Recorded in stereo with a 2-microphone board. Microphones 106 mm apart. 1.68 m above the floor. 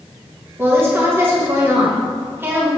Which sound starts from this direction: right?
A woman speaking, at 0.6 s.